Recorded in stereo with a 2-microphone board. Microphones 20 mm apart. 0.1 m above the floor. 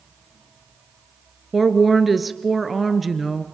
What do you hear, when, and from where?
1.5 s a woman speaking: centre (ahead or behind), 1.3 m